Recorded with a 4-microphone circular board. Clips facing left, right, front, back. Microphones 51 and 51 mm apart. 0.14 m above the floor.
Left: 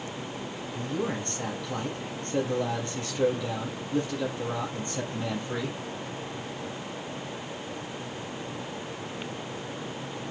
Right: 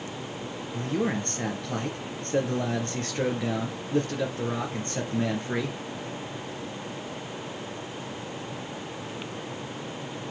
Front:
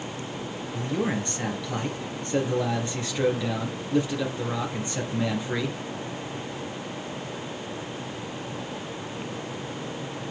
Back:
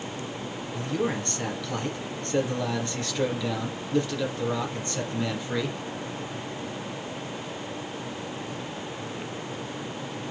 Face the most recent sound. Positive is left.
turn(degrees=-70)